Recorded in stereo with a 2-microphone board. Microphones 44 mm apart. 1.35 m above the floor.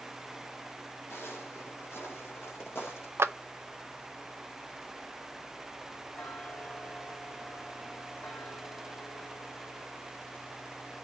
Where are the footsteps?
60° left (ahead or behind), 3.5 m.